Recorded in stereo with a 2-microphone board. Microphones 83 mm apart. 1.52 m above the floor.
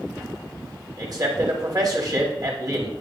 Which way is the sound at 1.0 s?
50° right (ahead or behind).